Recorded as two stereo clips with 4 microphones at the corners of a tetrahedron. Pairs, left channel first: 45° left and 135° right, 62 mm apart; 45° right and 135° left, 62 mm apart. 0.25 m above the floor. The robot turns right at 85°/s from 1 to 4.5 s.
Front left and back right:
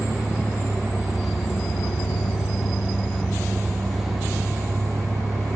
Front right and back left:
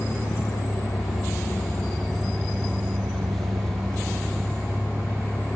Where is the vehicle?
60° right; by 5.6 s 120° right.